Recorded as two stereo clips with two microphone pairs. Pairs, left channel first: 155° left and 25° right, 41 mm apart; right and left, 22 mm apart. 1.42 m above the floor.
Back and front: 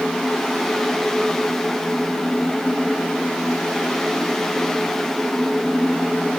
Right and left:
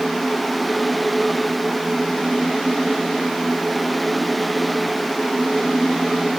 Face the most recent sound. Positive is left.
No sound to turn to.